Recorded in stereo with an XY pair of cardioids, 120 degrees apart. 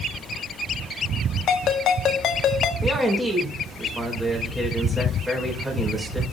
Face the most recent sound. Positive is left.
turn(degrees=-15)